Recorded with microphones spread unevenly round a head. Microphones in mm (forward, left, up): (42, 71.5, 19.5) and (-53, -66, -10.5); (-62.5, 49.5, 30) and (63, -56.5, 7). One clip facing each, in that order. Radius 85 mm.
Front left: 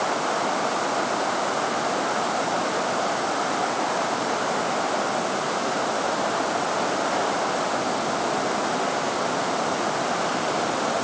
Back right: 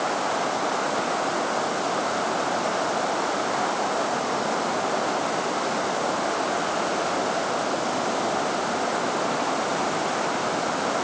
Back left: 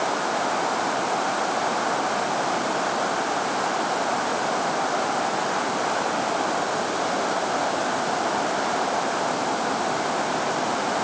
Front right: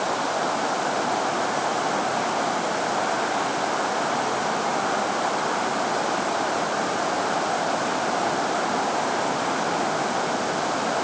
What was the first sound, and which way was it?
Only background noise.